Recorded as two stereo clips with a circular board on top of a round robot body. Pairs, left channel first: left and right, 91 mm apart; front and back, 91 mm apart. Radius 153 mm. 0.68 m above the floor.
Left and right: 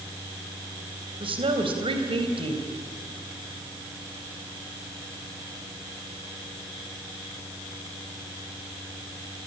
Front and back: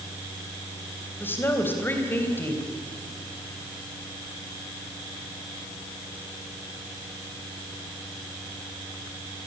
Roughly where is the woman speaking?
Right.